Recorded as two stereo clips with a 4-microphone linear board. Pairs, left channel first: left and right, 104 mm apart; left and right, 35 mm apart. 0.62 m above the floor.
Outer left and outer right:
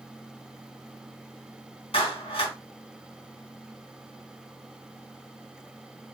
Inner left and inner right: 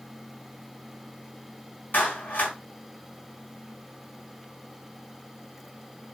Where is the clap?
70° left (ahead or behind), 3 m.